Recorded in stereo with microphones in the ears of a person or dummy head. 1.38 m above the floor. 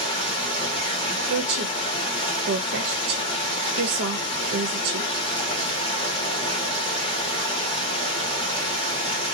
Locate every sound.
0.0 s running water: 25° left (ahead or behind), 1.8 m
1.3 s a woman speaking: 55° right (ahead or behind), 0.6 m